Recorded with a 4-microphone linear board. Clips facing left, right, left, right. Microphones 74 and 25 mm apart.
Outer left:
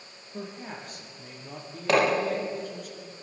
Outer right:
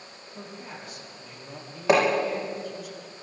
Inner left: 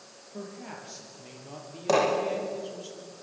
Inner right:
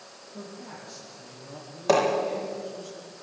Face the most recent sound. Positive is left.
turn(degrees=-15)  # may be behind; listen again after turning